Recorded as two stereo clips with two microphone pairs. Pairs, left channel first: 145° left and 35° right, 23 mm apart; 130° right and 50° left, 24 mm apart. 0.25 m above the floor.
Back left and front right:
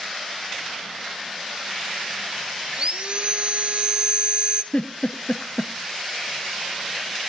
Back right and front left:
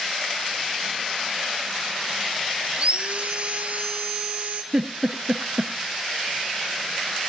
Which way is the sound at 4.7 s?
120° left.